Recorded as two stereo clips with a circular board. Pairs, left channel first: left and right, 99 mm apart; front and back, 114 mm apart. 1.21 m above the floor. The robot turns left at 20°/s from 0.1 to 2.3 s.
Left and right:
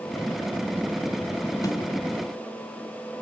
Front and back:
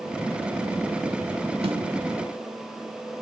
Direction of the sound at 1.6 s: 145° left.